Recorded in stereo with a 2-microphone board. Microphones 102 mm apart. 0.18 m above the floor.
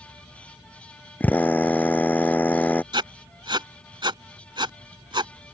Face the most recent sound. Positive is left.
turn(degrees=-50)  # may be behind; listen again after turning